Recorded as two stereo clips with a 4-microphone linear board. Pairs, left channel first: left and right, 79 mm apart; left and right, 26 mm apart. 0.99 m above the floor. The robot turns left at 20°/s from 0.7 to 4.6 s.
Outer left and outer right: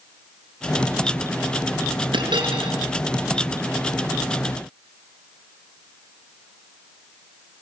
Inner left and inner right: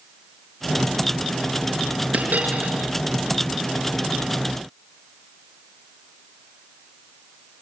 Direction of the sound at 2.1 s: 70° right (ahead or behind).